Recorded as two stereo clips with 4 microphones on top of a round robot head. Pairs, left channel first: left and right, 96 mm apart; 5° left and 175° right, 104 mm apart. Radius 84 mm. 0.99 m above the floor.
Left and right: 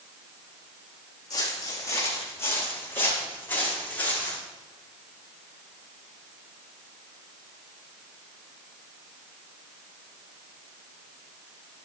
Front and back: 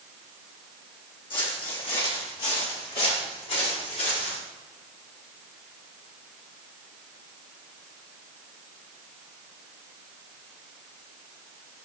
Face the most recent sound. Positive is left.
turn(degrees=15)